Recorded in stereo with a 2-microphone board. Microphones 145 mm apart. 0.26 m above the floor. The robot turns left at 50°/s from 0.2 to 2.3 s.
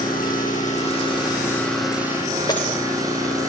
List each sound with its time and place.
0.0 s an engine running: 80° left, 8 m; by 3.5 s 25° right, 8 m
2.5 s breaking glass: 25° left (ahead or behind), 6.5 m